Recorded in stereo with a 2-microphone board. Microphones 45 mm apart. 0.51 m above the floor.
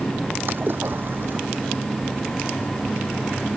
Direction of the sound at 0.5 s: 50° right (ahead or behind).